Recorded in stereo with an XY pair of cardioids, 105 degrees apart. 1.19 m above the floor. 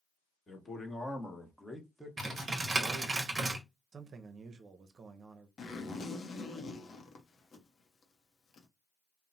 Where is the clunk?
No clunk in this recording.